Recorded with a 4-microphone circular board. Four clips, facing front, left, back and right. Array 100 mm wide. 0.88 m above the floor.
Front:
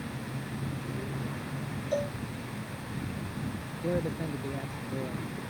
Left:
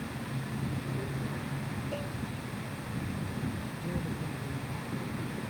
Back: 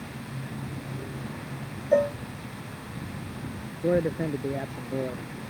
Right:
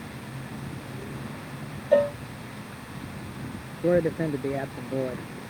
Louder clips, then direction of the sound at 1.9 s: Right 22 dB, back 10 dB; 120° right.